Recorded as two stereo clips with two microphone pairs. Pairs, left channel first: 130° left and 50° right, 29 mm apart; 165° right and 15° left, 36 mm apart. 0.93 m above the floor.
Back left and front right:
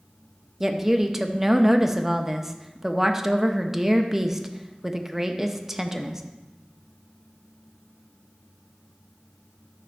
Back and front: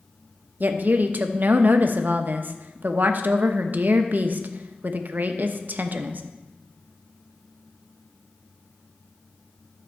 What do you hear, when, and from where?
0.6 s a woman speaking: 20° left, 0.8 m